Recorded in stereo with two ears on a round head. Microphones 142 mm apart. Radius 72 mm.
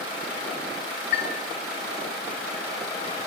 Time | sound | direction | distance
1.1 | a chime | 45° left (ahead or behind) | 1.4 m